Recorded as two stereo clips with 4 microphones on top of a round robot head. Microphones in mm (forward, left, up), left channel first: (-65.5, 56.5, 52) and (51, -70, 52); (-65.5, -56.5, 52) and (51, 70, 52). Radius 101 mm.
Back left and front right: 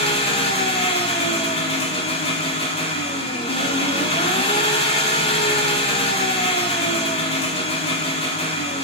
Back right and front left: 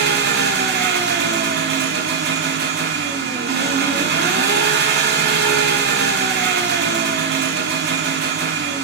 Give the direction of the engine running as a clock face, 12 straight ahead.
10 o'clock.